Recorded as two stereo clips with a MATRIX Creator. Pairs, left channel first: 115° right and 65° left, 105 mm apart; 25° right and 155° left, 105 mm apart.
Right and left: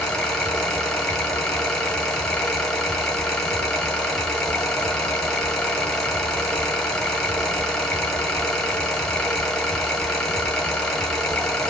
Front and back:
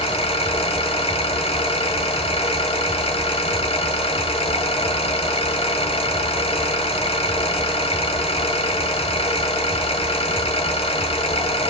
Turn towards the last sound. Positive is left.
turn(degrees=-30)